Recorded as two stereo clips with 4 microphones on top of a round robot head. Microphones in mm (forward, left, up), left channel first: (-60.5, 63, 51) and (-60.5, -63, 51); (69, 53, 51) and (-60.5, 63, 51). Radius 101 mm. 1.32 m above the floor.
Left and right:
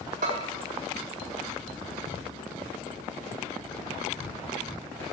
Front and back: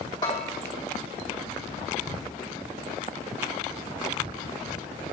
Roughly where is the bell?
Ahead right.